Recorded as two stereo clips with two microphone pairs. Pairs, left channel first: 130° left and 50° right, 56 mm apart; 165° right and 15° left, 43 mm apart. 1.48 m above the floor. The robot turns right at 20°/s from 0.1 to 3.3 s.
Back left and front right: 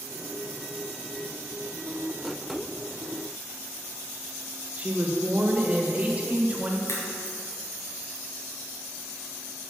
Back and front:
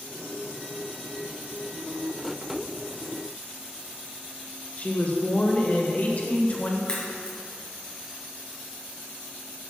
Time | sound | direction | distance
4.8 | a woman speaking | 115° right | 1.3 m
6.9 | a crack | 125° left | 2.5 m